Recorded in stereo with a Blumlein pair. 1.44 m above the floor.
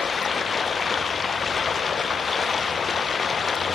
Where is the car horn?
I don't hear a car horn.